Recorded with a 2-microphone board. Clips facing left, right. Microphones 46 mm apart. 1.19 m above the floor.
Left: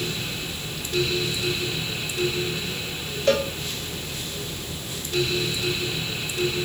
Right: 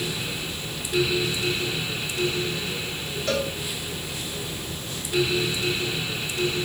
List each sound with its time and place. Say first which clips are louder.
3.3 s a cowbell: left 5 dB; 70° left (ahead or behind), 1.2 m